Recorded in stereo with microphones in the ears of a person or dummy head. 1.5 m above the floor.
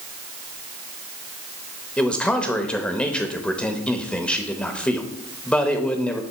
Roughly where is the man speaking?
Centre.